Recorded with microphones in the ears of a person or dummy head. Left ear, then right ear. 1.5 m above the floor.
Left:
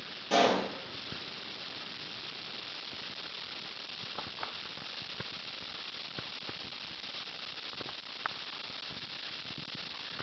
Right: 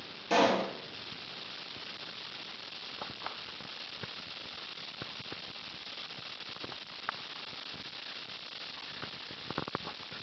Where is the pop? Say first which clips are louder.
Left 1 dB; 30° right (ahead or behind), 0.8 m.